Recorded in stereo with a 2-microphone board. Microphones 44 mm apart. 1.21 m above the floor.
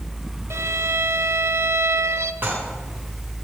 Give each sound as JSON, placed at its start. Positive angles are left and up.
{"t": 0.5, "sound": "a violin", "side_deg": -75, "distance_m": 1.2}
{"t": 2.4, "sound": "dishes clattering", "side_deg": -45, "distance_m": 9.5}